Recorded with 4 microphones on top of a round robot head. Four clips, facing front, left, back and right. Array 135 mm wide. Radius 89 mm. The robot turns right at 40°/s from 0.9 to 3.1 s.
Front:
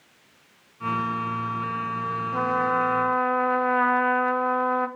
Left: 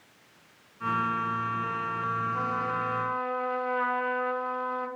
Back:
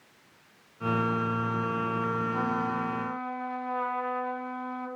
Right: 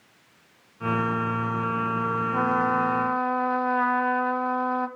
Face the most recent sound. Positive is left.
turn(degrees=-25)